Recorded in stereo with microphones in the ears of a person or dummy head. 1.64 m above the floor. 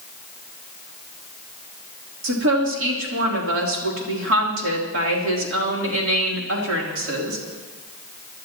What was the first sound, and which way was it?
A woman speaking, 85° right.